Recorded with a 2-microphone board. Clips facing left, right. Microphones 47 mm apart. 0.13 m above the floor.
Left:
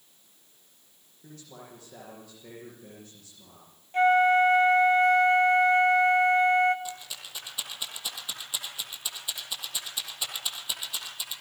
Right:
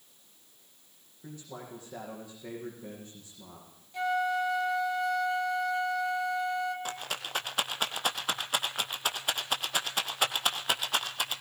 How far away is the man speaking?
About 7 m.